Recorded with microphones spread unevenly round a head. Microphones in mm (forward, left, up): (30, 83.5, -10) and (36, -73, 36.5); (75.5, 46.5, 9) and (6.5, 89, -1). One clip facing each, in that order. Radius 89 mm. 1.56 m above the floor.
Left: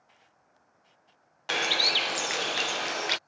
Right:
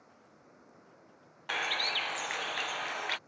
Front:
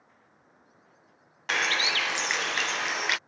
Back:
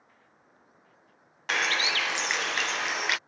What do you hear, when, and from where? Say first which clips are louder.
0.0 s running water: right 6 dB, even; 120° right
1.5 s a bird: left 6 dB, even; 50° left